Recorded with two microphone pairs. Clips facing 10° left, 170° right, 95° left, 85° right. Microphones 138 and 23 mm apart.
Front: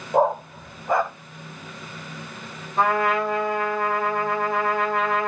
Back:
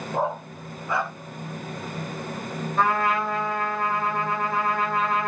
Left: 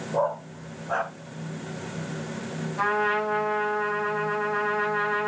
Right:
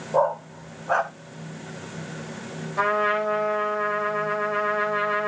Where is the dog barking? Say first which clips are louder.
Front 8 dB, right 4 dB; 35° right, 1.5 m.